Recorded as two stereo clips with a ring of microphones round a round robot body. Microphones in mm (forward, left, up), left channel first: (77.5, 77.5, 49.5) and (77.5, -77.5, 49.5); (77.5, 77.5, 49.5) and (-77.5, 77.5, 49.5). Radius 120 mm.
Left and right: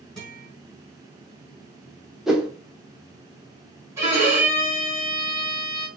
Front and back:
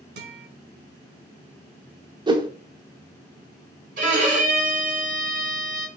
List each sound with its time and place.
0.2 s a guitar: straight behind, 2 m
2.3 s a whoosh: 175° right, 0.9 m
4.0 s a violin: 165° right, 2.0 m